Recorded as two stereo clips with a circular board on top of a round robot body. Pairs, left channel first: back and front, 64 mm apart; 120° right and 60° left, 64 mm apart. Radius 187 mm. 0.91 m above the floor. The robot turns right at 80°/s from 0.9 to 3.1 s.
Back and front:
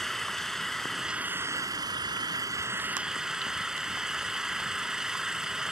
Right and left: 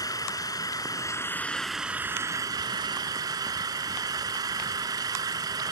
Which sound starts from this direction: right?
An engine running, at 0.0 s.